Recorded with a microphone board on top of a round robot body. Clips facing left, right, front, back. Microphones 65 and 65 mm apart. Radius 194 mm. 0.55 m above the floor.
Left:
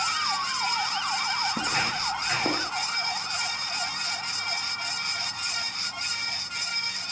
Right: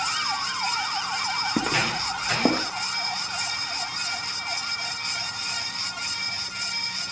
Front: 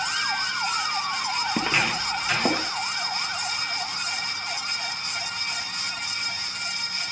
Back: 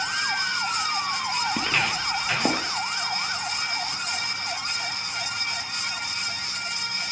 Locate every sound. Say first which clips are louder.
1.6 s footsteps: right 3 dB, front 1 dB; 70° right, 1.0 m; by 2.7 s 95° right, 2 m